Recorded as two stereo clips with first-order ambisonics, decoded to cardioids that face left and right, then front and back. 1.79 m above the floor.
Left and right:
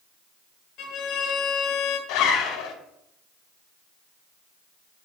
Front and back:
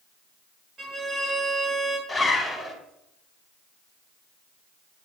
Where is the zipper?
85° left, 1.8 m.